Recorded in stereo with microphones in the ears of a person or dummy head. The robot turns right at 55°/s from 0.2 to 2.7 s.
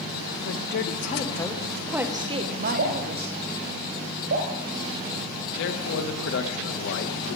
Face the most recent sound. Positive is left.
turn(degrees=70)  # may be behind; listen again after turning